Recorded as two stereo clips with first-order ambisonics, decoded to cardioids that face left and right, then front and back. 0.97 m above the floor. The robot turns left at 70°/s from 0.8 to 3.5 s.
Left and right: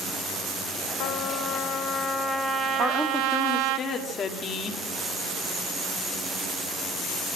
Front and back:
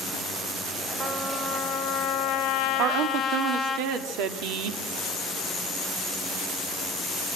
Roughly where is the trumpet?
Left.